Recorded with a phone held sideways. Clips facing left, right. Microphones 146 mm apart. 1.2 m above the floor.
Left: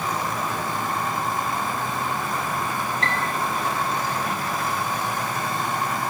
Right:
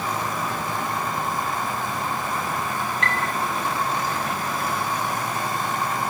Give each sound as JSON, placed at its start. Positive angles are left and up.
{"t": 3.0, "sound": "a piano", "side_deg": 30, "distance_m": 0.7}